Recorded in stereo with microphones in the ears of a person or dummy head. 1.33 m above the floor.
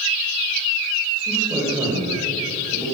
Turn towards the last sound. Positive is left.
turn(degrees=0)  # may be behind; listen again after turning